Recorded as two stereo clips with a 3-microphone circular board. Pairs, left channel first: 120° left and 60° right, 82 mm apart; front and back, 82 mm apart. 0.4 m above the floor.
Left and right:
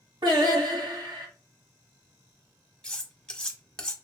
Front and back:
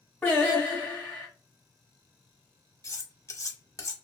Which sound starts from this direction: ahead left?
Cutlery clinking, at 2.8 s.